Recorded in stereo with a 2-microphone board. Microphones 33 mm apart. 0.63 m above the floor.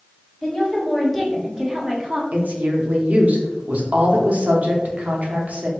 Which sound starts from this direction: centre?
A woman speaking, at 0.4 s.